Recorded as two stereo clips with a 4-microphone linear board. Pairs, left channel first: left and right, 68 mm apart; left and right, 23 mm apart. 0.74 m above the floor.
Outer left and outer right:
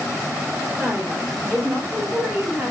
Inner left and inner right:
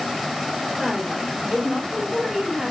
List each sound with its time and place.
0.8 s a woman speaking: 5° right (ahead or behind), 3.5 m